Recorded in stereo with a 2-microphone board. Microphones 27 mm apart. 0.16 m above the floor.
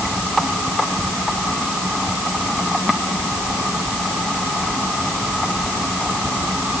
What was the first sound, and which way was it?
Only background noise.